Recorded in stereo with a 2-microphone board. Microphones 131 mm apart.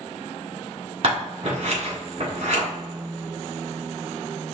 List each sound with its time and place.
1.0 s scissors: 55° right (ahead or behind), 1.9 m